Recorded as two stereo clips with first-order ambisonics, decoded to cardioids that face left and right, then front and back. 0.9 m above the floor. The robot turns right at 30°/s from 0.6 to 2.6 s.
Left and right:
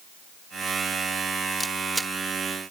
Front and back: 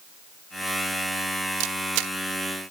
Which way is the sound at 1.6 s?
175° left.